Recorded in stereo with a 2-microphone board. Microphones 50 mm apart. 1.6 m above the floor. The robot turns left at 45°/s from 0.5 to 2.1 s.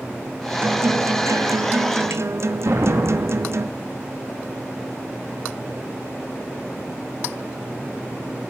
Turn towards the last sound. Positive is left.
turn(degrees=-70)  # may be behind; listen again after turning